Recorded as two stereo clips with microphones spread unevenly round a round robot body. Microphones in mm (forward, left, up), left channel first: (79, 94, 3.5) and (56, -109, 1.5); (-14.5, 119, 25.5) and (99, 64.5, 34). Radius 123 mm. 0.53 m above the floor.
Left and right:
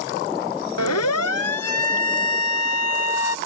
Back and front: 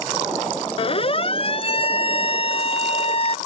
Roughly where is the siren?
Left.